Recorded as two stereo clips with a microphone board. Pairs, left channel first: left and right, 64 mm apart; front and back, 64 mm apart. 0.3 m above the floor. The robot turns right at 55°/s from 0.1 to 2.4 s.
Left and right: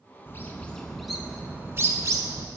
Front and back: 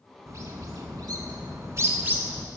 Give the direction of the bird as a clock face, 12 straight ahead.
7 o'clock.